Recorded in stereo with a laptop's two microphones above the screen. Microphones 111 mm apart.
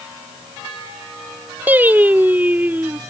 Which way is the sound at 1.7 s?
15° right (ahead or behind).